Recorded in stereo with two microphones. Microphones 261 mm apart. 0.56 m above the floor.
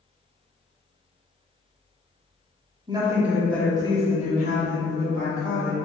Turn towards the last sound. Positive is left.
turn(degrees=55)  # may be behind; listen again after turning